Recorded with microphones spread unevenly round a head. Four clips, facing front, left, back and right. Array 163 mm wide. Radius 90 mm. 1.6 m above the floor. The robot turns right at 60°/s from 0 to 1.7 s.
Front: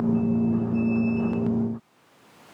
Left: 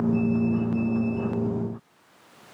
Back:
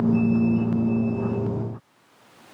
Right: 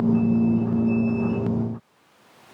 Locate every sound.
Only background noise.